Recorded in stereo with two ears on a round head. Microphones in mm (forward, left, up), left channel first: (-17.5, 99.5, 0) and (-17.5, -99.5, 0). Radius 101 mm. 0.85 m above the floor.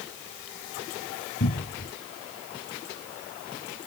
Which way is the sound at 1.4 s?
65° left (ahead or behind).